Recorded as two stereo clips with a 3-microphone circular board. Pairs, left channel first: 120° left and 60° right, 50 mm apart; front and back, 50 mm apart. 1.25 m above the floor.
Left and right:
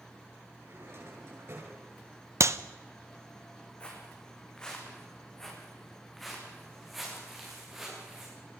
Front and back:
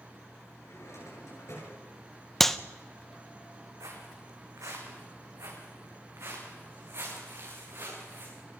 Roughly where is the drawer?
Ahead right.